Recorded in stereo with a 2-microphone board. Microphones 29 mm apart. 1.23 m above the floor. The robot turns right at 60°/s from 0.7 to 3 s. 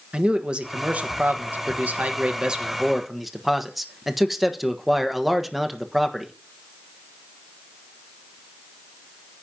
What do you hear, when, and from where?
0.1 s a man speaking: 140° right, 1.2 m; by 6.3 s 5° right, 1.2 m